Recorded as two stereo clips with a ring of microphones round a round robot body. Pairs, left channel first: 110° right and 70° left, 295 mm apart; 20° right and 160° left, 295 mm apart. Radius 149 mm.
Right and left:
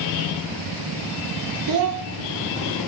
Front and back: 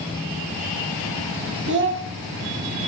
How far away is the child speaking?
About 0.8 m.